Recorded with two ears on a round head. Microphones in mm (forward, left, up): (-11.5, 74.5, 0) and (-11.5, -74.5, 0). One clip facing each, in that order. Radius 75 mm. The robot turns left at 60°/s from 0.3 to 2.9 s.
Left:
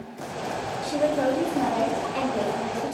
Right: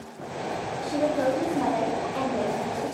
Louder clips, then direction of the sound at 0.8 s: Left 1 dB; 20° left (ahead or behind).